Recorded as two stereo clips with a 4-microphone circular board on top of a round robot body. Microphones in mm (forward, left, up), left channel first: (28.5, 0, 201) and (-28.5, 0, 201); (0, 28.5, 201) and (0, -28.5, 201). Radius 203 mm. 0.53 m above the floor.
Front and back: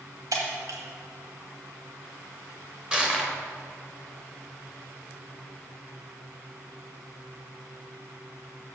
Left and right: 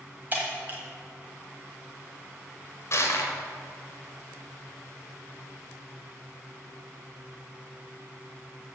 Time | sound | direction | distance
0.3 | breaking glass | 150° right | 1.4 m
2.9 | crushing | 110° left | 1.7 m